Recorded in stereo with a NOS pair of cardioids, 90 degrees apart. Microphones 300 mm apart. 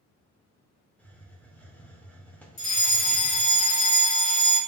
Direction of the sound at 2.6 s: 65° left.